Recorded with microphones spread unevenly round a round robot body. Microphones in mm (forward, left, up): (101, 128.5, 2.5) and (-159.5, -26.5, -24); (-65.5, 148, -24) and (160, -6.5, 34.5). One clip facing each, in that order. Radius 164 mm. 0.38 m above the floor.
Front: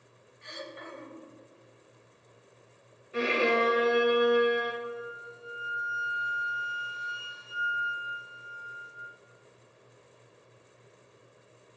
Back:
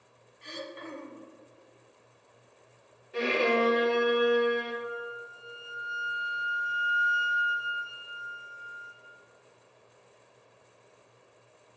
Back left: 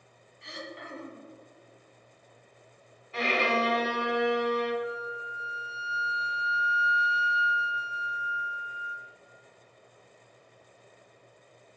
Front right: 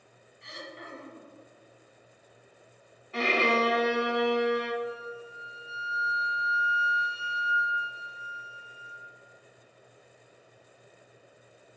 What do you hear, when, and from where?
0.4 s throat clearing: 160° left, 0.7 m
3.1 s a violin: 50° right, 0.8 m
4.8 s a flute: 135° left, 0.9 m